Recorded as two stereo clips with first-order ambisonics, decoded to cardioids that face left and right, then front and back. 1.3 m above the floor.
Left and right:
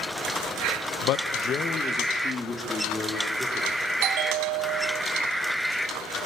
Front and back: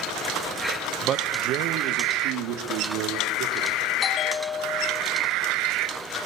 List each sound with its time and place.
1.0 s a man speaking: 120° left, 1.1 m; by 3.8 s 170° left, 4.5 m
4.0 s a bell: 65° right, 1.6 m